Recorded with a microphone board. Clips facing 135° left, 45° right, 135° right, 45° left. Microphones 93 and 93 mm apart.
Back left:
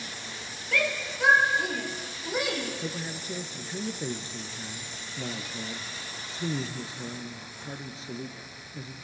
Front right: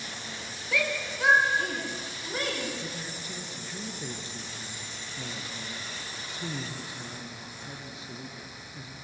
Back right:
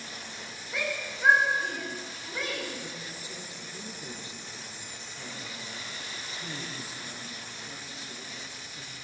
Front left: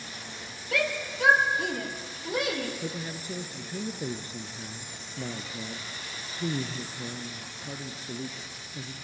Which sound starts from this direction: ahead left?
A shout, at 0.7 s.